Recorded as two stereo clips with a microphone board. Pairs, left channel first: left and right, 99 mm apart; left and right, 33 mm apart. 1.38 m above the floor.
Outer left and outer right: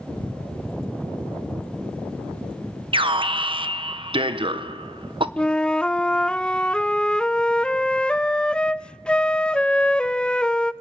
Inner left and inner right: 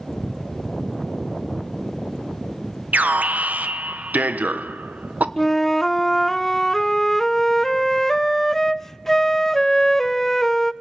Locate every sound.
2.9 s an alarm: 60° right (ahead or behind), 1.0 m
5.4 s a flute: 10° left (ahead or behind), 0.5 m